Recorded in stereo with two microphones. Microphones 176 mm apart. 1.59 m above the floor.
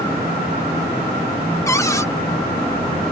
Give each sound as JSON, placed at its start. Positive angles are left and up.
{"t": 1.7, "sound": "a cupboard door", "side_deg": 15}